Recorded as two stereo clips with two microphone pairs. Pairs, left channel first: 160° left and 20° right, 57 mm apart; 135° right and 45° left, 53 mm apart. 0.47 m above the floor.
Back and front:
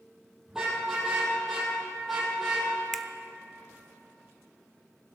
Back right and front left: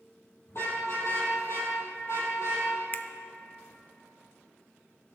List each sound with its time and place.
0.5 s a car horn: 100° right, 6.5 m; by 2.7 s 110° right, 7 m
2.9 s a finger snap: 110° right, 0.6 m